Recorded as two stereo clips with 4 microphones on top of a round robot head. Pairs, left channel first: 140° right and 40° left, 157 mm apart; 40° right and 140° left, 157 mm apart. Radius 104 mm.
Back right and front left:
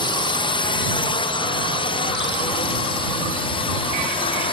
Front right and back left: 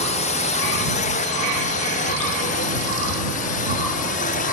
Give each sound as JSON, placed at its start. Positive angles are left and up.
{"t": 0.0, "sound": "a drone", "azimuth_deg": -80}